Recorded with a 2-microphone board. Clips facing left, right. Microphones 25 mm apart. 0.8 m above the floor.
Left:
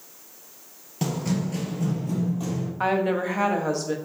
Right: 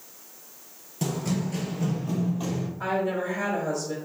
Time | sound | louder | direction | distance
1.0 | running footsteps | left 2 dB | 20° left (ahead or behind) | 0.8 m
2.8 | a woman speaking | left 4 dB | 50° left (ahead or behind) | 0.7 m